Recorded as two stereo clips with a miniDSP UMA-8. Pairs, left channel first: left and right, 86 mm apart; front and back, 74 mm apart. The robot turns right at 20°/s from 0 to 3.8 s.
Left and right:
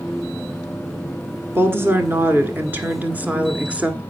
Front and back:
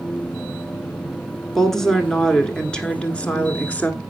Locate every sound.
1.6 s a woman speaking: 80° right, 1.2 m; by 4.0 s 35° right, 1.2 m